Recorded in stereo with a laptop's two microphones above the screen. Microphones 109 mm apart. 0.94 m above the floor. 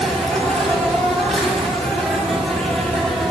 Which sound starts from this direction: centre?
An insect, at 0.0 s.